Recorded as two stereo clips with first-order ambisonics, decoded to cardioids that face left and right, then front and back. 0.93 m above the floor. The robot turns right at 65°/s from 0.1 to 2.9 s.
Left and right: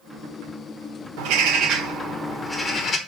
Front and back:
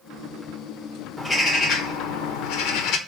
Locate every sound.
1.2 s a bird: 85° right, 1.2 m; by 3.0 s 30° left, 1.2 m